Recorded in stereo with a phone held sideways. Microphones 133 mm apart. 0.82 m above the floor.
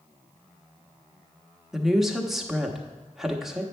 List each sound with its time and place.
1.7 s a woman speaking: centre (ahead or behind), 1.0 m